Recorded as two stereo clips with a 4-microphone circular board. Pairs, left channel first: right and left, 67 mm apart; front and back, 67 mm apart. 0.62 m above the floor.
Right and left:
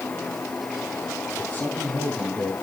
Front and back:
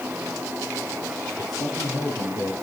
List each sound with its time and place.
1.4 s a man speaking: 20° right, 7.5 m; by 2.5 s 25° right, 6.5 m